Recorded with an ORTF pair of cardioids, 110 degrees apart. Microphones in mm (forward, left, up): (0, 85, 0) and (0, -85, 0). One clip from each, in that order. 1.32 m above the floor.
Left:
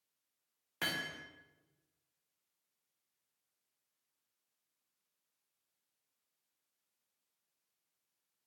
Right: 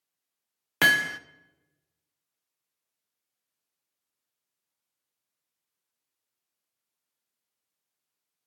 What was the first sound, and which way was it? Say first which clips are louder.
Hammering: right 17 dB; 70° right.